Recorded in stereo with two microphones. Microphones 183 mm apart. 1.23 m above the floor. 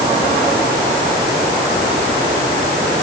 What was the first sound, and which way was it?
Only background noise.